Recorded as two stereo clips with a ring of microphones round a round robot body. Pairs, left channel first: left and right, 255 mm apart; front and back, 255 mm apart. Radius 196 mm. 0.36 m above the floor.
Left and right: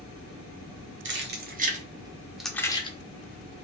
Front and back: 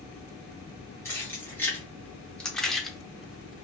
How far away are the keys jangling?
About 1.0 m.